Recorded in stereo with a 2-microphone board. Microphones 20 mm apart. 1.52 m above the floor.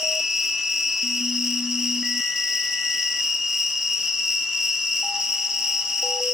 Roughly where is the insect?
Centre.